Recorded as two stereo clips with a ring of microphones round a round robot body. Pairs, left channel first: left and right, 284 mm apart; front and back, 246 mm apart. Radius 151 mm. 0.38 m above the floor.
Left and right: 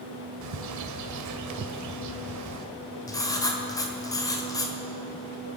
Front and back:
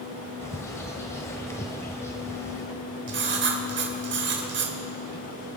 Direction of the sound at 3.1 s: 165° left.